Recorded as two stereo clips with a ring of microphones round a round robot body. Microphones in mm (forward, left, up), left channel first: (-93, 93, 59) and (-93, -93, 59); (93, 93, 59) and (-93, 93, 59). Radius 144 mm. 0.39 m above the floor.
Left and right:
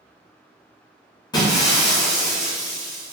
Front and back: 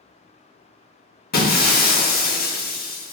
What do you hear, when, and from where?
1.3 s breaking glass: 25° left, 0.7 m